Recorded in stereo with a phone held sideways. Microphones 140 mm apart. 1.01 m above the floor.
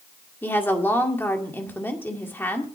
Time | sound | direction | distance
0.4 | a woman speaking | 15° left (ahead or behind) | 2 m